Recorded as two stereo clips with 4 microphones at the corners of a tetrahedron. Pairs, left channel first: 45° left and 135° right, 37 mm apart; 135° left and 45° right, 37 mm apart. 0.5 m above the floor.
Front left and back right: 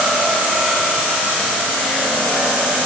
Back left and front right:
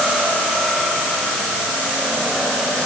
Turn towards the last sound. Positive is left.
No sound to turn to.